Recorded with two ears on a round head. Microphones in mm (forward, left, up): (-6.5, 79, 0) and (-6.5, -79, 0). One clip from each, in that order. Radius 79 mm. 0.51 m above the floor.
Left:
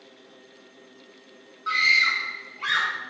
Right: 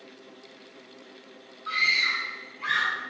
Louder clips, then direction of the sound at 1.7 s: Left 4 dB; 35° left (ahead or behind).